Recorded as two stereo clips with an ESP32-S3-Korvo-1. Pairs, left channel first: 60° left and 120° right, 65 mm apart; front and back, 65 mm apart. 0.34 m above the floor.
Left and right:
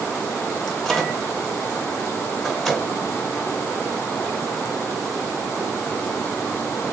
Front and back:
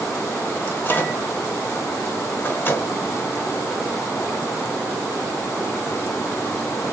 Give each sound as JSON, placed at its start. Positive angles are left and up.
{"t": 0.7, "sound": "a microwave", "azimuth_deg": -20, "distance_m": 0.8}